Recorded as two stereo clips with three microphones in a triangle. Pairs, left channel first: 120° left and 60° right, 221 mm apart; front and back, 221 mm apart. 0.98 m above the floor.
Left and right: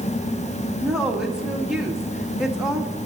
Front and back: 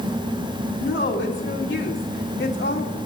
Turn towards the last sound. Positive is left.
turn(degrees=25)